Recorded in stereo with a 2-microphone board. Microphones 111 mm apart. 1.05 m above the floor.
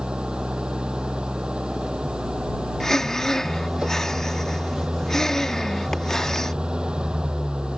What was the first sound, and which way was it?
An engine running, 10° right (ahead or behind).